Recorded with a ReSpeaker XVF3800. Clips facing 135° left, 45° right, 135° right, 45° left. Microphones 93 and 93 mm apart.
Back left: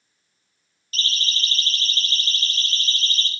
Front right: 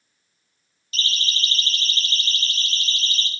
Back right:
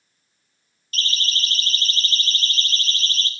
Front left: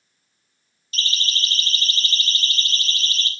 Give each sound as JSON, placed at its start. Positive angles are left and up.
{"t": 0.9, "sound": "a siren", "azimuth_deg": -175, "distance_m": 9.0}